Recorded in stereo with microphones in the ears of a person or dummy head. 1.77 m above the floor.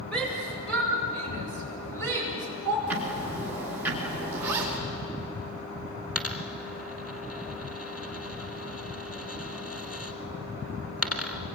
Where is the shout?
Centre (ahead or behind), 7.5 m; by 2.8 s 10° left (ahead or behind), 7 m.